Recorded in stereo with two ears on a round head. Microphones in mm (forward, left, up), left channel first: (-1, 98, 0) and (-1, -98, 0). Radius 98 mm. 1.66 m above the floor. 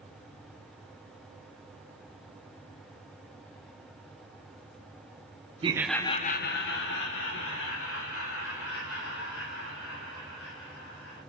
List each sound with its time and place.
5.6 s laughter: 25° right (ahead or behind), 0.6 m; by 11.2 s 70° left (ahead or behind), 6 m